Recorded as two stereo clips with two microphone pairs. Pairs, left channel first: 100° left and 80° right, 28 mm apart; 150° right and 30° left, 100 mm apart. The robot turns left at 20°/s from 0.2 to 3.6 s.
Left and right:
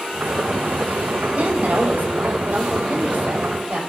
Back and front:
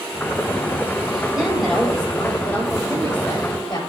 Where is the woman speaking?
55° right, 9 m; by 3.8 s 100° right, 9 m.